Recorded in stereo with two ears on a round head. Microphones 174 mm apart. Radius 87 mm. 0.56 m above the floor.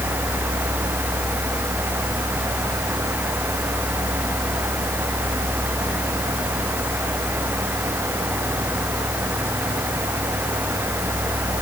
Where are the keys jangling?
I don't hear keys jangling.